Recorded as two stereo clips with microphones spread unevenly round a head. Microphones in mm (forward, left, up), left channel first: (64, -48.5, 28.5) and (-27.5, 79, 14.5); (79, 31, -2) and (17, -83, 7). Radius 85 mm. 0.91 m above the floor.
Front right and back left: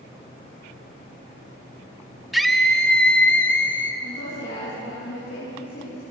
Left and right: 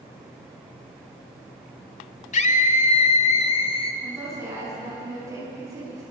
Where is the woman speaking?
55° right, 10 m.